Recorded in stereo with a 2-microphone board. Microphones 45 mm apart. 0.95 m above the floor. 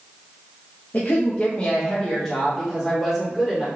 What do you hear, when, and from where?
0.9 s a woman speaking: 40° left (ahead or behind), 0.6 m; by 3.6 s 10° right (ahead or behind), 1.8 m